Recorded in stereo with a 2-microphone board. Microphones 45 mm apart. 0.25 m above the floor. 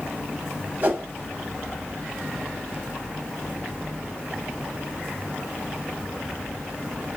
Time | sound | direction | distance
0.8 | a whoosh | 45° right (ahead or behind) | 0.5 m